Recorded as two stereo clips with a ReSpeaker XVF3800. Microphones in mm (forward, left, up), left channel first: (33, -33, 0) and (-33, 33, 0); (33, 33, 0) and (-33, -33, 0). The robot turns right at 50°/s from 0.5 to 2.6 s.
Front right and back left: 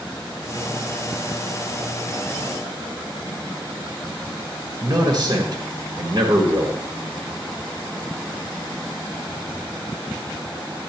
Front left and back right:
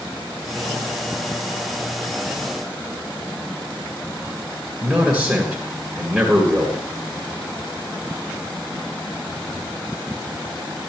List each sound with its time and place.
4.8 s a man speaking: 140° left, 1.8 m